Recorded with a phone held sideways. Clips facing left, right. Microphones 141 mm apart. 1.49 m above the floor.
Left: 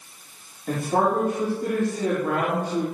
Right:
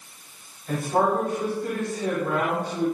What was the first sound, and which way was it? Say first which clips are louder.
A man speaking: even; 70° left (ahead or behind).